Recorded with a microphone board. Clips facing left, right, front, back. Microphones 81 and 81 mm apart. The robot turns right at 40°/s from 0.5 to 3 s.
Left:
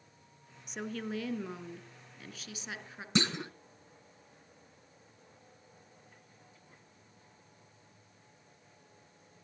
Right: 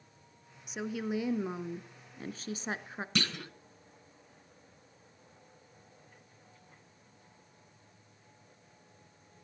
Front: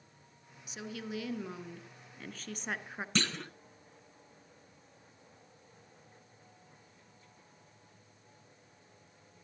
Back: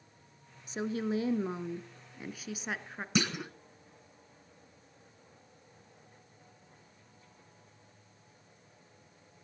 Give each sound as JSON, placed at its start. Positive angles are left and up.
{"t": 0.7, "sound": "a woman speaking", "azimuth_deg": 180, "distance_m": 1.2}
{"t": 3.1, "sound": "a clunk", "azimuth_deg": 115, "distance_m": 0.9}